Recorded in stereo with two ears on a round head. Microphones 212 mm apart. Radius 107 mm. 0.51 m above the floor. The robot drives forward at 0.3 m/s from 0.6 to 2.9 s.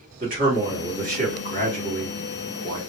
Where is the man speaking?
35° right (ahead or behind), 1.2 m; by 2.8 s 40° right (ahead or behind), 1.1 m.